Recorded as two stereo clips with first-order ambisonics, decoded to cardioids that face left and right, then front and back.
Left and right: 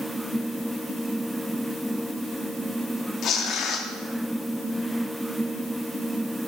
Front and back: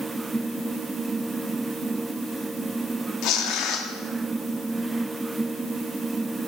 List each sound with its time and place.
3.2 s tearing paper: 35° left, 1.6 m